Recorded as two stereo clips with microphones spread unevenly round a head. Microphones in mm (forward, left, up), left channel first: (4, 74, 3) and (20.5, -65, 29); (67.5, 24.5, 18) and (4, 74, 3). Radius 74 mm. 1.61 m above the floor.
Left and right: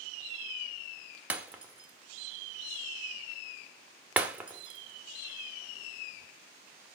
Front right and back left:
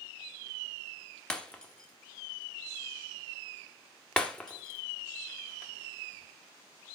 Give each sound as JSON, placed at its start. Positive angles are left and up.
{"t": 1.3, "sound": "breaking glass", "azimuth_deg": -55, "distance_m": 1.0}